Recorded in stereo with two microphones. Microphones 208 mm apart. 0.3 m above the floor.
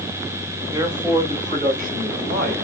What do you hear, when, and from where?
0.7 s a man speaking: 15° right (ahead or behind), 1.4 m; by 2.5 s 55° right (ahead or behind), 2 m